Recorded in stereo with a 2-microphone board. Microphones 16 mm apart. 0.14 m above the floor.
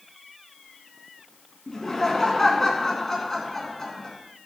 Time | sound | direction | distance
1.7 | laughter | 25° left (ahead or behind) | 1.5 m